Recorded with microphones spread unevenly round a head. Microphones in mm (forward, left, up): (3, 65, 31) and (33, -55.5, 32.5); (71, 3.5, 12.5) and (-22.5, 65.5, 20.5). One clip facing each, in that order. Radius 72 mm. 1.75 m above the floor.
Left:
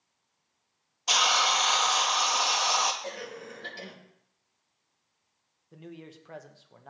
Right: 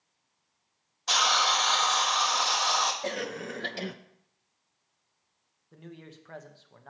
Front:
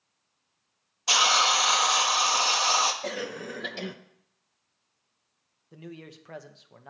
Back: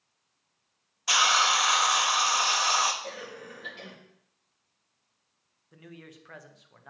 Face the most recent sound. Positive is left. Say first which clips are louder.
# left 2 dB, front 5 dB
turn(degrees=25)